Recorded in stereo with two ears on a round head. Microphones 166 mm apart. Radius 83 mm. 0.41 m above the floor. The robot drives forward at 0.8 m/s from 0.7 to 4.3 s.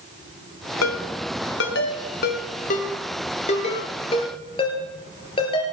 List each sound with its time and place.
0.8 s a ringtone: 80° left, 1.4 m; by 5.6 s 30° left (ahead or behind), 3 m